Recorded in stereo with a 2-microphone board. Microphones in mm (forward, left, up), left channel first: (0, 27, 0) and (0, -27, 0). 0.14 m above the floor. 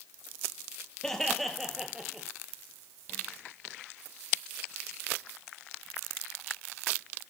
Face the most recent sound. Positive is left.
turn(degrees=-15)  # may be behind; listen again after turning